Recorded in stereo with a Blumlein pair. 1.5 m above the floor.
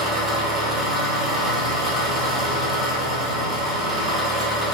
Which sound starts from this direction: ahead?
An engine running, at 0.0 s.